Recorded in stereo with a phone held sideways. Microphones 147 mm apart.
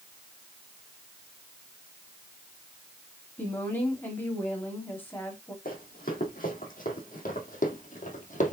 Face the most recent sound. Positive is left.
turn(degrees=55)  # may be behind; listen again after turning